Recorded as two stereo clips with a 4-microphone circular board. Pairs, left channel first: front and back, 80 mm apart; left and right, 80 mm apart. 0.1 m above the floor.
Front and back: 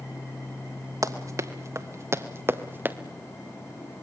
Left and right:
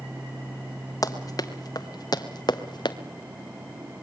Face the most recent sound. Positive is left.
turn(degrees=115)